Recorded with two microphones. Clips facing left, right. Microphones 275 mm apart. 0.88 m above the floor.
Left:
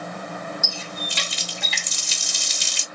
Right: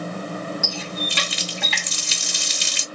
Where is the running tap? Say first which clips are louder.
Right 5 dB; 65° right (ahead or behind), 0.7 m.